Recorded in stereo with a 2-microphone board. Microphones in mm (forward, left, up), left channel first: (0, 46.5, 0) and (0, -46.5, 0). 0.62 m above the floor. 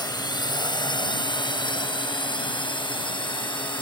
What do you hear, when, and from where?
0.0 s a drone: 45° left (ahead or behind); by 3.8 s 60° left (ahead or behind)